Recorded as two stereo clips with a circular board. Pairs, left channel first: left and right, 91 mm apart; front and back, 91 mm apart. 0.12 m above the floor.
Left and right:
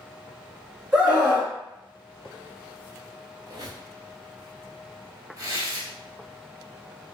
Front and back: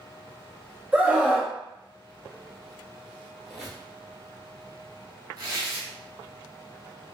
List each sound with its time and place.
0.9 s a scream: 160° right, 1.1 m
3.5 s a squeak: 95° right, 1.2 m
5.4 s tearing paper: 140° right, 1.1 m